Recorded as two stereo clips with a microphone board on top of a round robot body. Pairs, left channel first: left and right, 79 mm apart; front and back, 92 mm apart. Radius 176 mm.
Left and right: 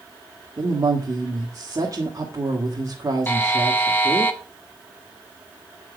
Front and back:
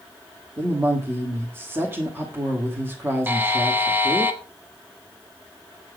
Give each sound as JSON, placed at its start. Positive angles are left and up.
{"t": 0.6, "sound": "a woman speaking", "azimuth_deg": -120, "distance_m": 1.9}
{"t": 3.3, "sound": "a buzzer", "azimuth_deg": 130, "distance_m": 1.5}